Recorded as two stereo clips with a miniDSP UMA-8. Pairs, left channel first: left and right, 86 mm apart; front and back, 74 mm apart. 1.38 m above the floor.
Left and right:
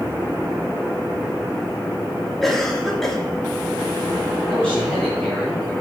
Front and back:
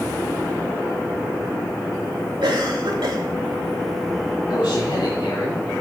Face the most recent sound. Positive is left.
turn(degrees=10)